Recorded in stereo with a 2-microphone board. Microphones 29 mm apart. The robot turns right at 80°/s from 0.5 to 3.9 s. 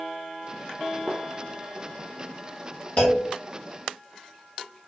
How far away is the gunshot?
About 0.6 m.